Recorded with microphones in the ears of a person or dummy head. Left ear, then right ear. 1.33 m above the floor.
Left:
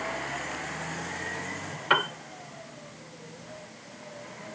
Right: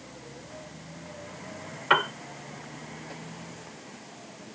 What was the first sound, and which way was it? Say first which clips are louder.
A piano: right 1 dB; 10° right (ahead or behind).